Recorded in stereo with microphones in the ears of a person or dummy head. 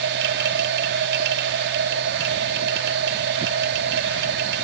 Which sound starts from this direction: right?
A machine running, at 0.0 s.